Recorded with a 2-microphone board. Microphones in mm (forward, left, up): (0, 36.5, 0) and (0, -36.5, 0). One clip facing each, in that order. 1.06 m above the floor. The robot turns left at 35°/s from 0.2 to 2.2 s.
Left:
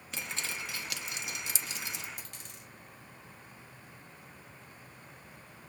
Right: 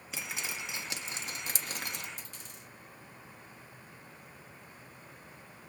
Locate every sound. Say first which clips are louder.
0.1 s dripping: even; 5° right (ahead or behind), 0.6 m; by 2.1 s 60° right (ahead or behind), 0.6 m
2.2 s a dropped coin: even; 70° left (ahead or behind), 2.5 m